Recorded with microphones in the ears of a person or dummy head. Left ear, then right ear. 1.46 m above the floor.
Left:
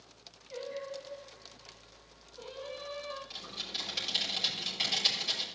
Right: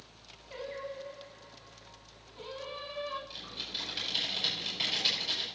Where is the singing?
85° right, 3 m.